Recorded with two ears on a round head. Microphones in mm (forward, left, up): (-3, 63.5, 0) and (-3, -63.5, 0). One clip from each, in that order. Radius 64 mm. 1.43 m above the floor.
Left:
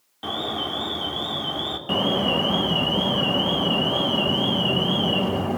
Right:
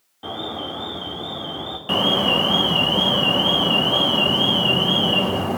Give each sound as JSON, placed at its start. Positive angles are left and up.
{"t": 0.2, "sound": "an alarm", "side_deg": 75, "distance_m": 4.0}
{"t": 1.9, "sound": "an alarm", "side_deg": -25, "distance_m": 0.7}